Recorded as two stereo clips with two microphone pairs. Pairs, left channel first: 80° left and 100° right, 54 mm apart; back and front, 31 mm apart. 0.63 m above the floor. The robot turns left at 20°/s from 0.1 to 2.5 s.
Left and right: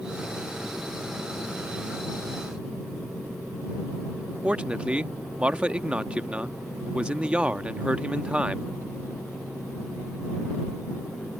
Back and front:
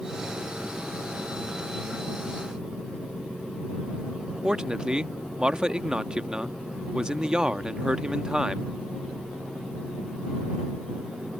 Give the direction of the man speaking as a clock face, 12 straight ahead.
2 o'clock.